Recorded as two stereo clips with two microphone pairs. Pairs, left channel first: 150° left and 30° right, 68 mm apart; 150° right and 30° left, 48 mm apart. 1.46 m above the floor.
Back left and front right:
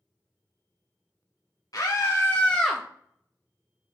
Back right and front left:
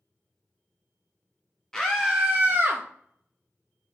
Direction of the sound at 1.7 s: 130° left.